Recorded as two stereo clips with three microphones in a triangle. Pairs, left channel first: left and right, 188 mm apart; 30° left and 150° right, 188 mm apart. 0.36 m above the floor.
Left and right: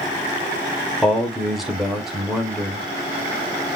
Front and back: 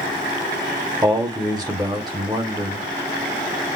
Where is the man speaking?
Straight behind, 1.0 m.